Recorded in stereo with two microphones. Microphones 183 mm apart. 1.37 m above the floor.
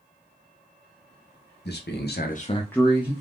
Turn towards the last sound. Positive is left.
turn(degrees=-15)  # may be behind; listen again after turning